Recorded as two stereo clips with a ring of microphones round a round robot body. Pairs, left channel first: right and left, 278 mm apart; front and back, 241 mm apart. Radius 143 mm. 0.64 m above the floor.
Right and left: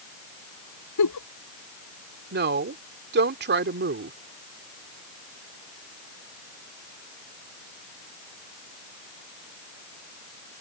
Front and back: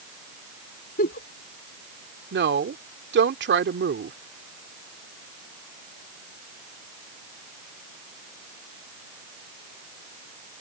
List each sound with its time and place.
1.0 s a giggle: 60° right
2.3 s a woman speaking: 140° left